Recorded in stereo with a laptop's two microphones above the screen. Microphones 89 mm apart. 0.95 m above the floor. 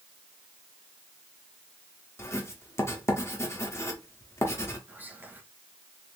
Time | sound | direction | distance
2.2 | writing | 30° left (ahead or behind) | 0.7 m
4.9 | whispering | 20° right (ahead or behind) | 0.8 m